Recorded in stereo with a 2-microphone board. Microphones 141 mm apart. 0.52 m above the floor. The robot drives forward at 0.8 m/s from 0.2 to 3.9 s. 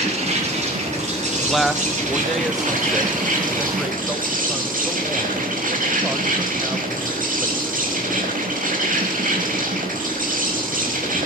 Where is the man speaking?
Centre (ahead or behind), 0.7 m.